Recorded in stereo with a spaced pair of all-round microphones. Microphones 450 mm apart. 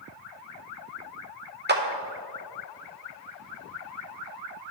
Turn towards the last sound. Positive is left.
turn(degrees=-25)  # may be behind; listen again after turning